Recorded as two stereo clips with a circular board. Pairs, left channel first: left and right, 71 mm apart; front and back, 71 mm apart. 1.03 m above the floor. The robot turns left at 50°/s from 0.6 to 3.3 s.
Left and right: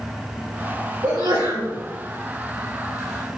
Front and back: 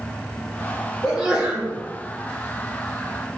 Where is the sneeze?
85° right, 4 m; by 1.7 s 120° right, 4 m.